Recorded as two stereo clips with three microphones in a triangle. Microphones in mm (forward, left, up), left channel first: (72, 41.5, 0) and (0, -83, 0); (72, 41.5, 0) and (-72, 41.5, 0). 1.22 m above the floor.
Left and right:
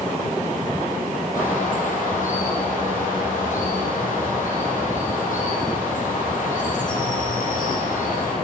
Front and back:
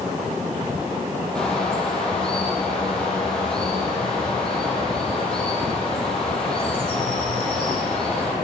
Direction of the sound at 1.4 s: 85° left.